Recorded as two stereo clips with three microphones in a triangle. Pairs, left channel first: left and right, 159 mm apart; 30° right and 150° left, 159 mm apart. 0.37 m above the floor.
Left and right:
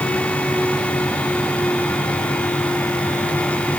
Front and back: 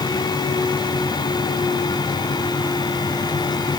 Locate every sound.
Only background noise.